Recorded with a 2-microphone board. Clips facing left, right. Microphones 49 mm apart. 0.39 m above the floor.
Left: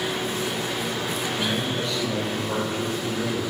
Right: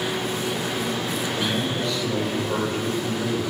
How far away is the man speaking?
About 1.4 m.